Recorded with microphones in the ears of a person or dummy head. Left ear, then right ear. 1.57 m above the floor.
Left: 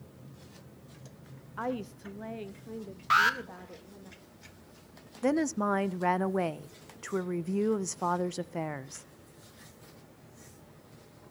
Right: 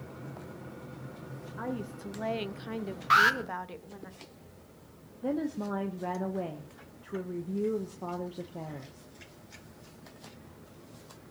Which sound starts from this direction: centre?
An alarm, at 3.1 s.